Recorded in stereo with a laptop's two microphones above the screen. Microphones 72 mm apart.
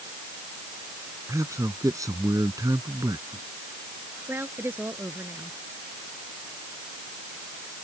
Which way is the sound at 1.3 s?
45° right (ahead or behind).